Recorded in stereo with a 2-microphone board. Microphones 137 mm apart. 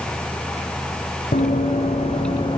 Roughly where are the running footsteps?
Left.